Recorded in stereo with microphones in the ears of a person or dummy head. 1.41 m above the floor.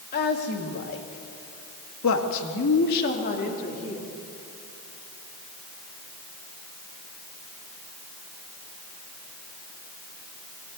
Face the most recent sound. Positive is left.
turn(degrees=35)  # may be behind; listen again after turning